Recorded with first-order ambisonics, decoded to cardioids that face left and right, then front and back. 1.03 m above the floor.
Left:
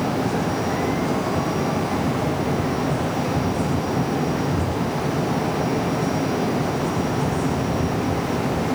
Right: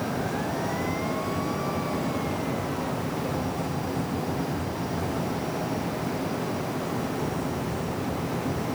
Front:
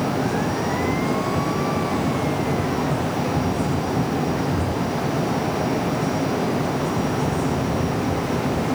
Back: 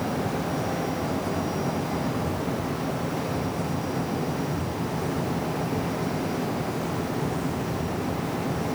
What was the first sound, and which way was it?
Only background noise.